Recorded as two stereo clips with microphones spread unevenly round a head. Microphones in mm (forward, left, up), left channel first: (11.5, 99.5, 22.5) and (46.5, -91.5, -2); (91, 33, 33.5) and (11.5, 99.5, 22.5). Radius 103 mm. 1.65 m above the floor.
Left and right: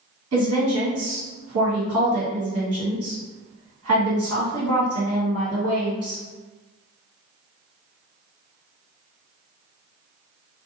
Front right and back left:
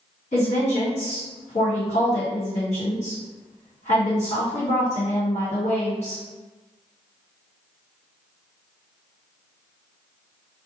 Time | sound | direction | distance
0.3 | a woman speaking | 90° right | 1.7 m